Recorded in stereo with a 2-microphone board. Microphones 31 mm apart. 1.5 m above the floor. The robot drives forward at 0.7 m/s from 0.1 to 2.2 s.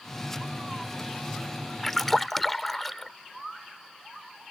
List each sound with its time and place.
1.8 s a splash: 10° left (ahead or behind)